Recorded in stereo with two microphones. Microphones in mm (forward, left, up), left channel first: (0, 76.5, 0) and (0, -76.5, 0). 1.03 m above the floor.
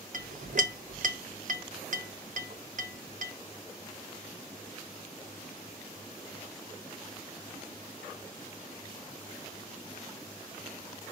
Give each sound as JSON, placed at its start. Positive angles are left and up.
{"t": 0.1, "sound": "a clink", "side_deg": -60, "distance_m": 0.6}